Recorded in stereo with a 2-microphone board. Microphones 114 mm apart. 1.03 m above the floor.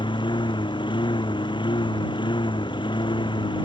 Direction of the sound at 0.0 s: 45° left (ahead or behind).